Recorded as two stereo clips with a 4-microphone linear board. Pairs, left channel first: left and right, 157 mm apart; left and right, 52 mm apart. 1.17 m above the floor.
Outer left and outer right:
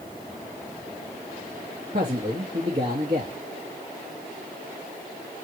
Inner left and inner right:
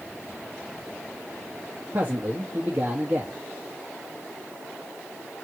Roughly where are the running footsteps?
I don't hear running footsteps.